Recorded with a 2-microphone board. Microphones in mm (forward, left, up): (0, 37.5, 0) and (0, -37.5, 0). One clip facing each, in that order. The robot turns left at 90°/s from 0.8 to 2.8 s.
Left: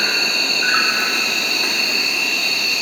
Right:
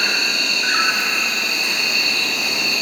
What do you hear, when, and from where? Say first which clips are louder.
0.0 s an insect: left 1 dB; 140° left, 0.8 m; by 2.8 s 40° right, 0.8 m